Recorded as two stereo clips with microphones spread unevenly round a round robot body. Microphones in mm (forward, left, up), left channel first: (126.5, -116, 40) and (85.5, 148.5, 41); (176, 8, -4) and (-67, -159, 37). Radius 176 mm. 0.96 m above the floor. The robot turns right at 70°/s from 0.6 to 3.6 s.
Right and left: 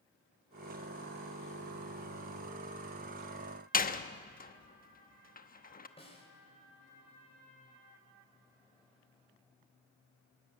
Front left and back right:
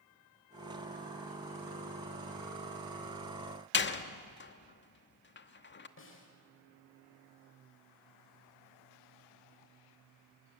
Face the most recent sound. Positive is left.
turn(degrees=-10)